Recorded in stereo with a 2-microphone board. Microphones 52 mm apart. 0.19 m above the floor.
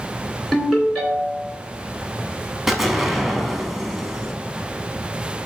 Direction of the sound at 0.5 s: Centre (ahead or behind).